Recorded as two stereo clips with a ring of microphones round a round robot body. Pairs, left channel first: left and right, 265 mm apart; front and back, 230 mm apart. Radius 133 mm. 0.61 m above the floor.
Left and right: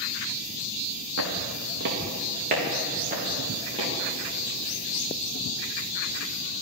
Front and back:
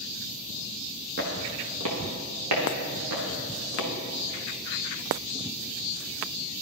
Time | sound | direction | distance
1.2 | footsteps | 125° right | 2 m